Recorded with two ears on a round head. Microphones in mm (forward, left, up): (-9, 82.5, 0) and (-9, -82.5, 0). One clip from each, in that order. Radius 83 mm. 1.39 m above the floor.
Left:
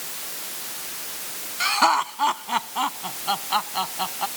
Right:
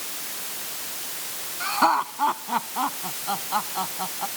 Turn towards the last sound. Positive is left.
turn(degrees=70)  # may be behind; listen again after turning